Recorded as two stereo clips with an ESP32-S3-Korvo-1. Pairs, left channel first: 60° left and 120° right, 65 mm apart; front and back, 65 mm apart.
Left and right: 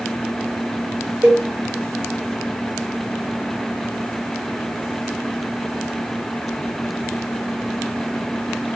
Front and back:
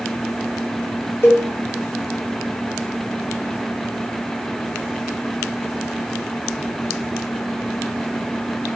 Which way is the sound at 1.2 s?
55° right.